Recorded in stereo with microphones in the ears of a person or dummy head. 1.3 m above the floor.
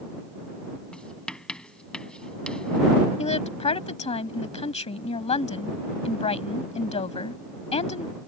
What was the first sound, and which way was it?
Writing, centre (ahead or behind).